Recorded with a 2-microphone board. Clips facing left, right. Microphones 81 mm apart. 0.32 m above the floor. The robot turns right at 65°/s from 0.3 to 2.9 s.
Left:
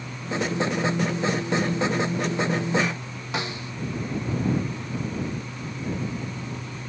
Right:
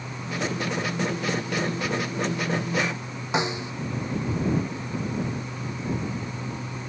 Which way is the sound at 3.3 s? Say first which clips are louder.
Right 5 dB; 20° right (ahead or behind).